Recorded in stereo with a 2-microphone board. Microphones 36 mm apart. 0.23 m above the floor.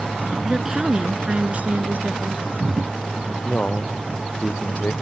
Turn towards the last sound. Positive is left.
turn(degrees=50)  # may be behind; listen again after turning